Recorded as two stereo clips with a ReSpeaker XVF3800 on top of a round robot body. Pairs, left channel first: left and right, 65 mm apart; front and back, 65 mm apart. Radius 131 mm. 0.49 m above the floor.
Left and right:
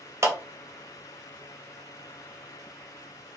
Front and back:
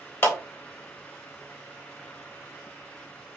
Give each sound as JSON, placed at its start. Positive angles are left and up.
{"t": 0.2, "sound": "a clap", "azimuth_deg": -50, "distance_m": 1.7}